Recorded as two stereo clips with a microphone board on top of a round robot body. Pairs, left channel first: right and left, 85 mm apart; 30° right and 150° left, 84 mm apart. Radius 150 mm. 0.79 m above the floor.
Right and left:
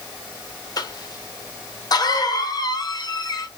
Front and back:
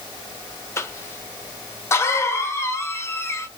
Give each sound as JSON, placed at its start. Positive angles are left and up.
{"t": 0.8, "sound": "a cough", "azimuth_deg": -80, "distance_m": 0.9}